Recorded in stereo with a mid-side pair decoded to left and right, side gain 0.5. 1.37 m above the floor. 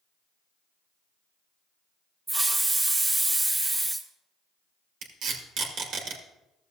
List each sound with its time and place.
2.3 s a hiss: 20° right, 1.4 m
5.0 s tape being pulled: 70° right, 1.9 m